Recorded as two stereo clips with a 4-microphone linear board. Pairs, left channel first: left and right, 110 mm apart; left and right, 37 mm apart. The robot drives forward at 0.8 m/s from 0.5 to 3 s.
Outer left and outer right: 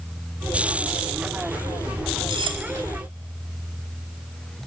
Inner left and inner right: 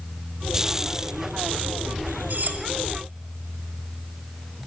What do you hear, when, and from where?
2.3 s cutlery clinking: 50° right (ahead or behind), 1.9 m